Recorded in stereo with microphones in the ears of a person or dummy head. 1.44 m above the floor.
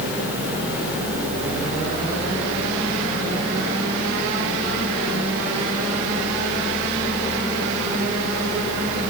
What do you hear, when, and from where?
Only background noise.